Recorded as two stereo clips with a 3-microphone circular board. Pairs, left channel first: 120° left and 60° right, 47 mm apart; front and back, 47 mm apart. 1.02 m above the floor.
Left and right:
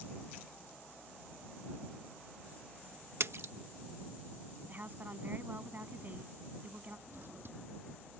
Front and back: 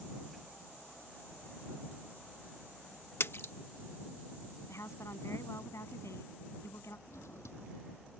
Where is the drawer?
20° right.